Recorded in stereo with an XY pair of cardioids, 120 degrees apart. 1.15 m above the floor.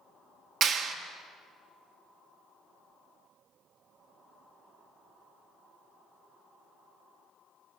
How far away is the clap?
About 1.6 m.